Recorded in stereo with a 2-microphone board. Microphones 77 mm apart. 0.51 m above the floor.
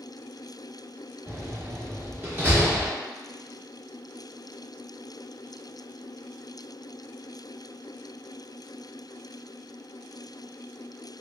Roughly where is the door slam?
Right.